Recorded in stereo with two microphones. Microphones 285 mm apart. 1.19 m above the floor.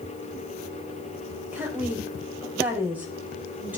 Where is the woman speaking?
5° right (ahead or behind), 5 m.